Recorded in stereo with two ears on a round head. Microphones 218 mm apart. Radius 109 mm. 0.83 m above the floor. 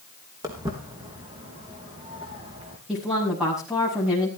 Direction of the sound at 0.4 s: 15° right (ahead or behind).